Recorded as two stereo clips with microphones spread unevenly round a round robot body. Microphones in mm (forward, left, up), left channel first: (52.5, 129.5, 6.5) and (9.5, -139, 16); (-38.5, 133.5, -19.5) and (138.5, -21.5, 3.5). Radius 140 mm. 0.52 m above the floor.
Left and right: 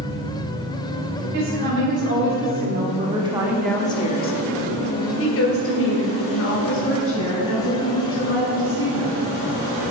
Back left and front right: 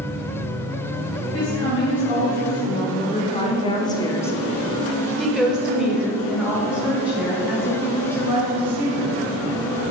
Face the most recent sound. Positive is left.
turn(degrees=40)